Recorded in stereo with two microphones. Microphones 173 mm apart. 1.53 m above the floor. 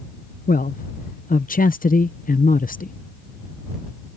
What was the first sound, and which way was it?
A man speaking, 55° left (ahead or behind).